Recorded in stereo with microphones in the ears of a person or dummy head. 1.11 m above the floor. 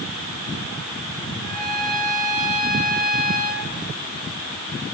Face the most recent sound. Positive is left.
turn(degrees=0)  # may be behind; listen again after turning